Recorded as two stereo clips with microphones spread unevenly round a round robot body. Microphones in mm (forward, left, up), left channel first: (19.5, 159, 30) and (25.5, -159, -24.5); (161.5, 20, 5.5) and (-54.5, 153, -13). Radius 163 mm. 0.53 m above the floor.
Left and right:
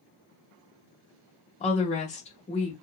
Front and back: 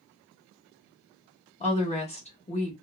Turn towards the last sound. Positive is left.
turn(degrees=20)